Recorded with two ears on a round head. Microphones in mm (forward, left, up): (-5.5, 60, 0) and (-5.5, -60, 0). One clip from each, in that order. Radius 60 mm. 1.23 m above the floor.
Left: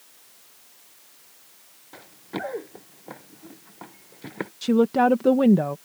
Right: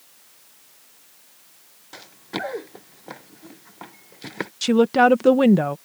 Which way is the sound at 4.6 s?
50° right (ahead or behind).